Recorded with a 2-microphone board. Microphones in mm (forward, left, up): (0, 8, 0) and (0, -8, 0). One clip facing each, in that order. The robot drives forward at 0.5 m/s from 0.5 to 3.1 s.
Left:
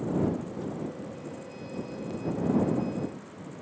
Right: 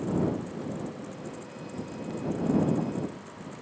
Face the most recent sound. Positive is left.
No sound to turn to.